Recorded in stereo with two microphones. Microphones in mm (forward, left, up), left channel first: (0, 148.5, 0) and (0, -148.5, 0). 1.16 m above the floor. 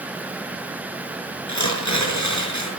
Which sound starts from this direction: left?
Tearing paper, at 1.5 s.